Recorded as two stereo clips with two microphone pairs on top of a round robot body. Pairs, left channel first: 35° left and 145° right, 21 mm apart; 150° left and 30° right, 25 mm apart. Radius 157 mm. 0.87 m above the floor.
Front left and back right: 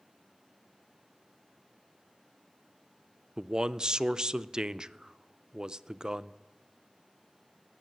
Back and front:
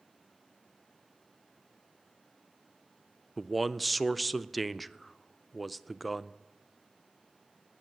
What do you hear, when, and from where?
3.4 s a man speaking: 120° right, 0.5 m